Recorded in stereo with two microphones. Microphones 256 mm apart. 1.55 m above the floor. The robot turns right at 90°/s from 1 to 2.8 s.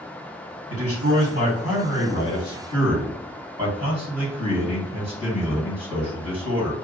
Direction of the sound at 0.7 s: 70° right.